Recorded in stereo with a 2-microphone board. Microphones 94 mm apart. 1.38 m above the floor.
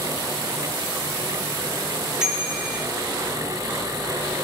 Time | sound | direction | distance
2.2 | a bicycle bell | 10° right (ahead or behind) | 4.5 m